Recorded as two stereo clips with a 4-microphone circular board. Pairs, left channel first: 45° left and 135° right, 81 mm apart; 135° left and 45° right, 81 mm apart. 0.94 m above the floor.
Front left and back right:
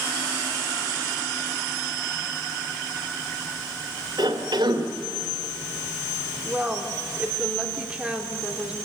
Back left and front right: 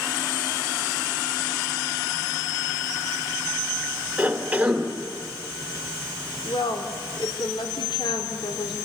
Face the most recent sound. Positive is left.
turn(degrees=145)